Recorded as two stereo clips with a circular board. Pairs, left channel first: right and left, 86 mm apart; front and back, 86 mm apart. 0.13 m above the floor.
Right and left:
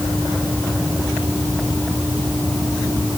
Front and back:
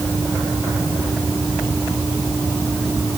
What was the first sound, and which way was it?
Only background noise.